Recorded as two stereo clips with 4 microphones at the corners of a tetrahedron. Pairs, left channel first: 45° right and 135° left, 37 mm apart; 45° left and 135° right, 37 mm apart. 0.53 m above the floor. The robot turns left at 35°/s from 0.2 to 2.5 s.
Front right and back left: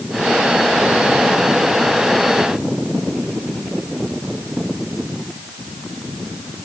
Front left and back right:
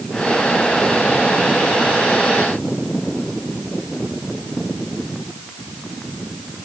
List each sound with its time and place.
Only background noise.